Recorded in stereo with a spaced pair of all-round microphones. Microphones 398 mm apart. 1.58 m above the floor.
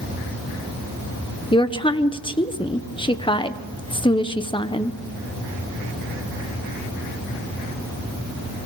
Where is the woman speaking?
15° left (ahead or behind), 1.0 m.